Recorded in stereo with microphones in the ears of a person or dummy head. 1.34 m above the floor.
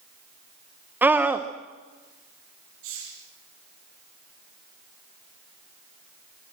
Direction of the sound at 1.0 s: 5° right (ahead or behind).